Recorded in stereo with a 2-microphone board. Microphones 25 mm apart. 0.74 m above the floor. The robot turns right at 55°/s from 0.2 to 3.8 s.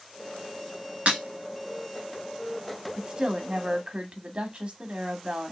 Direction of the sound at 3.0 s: 145° right.